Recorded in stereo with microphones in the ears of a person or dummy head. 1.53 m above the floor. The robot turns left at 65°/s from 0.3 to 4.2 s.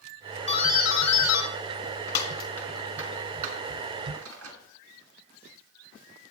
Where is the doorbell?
30° left (ahead or behind), 2 m; by 4.6 s 70° right (ahead or behind), 2 m.